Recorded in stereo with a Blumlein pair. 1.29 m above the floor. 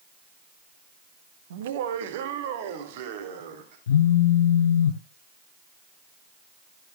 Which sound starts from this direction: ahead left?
A phone buzzing, at 3.9 s.